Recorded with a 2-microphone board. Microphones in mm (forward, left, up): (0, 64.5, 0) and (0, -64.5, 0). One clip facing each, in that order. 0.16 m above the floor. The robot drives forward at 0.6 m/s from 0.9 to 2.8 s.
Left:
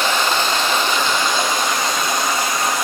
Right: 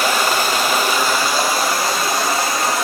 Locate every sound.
0.0 s running water: 10° right (ahead or behind), 1.7 m; by 2.9 s 5° right (ahead or behind), 3 m